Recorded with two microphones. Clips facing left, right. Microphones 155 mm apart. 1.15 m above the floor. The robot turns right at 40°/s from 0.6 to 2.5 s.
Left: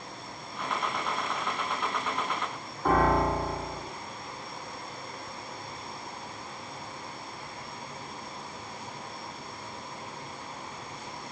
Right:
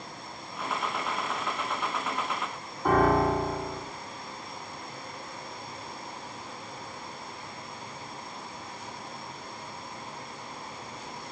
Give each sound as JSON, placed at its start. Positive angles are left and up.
{"t": 2.9, "sound": "a piano", "side_deg": -5, "distance_m": 2.5}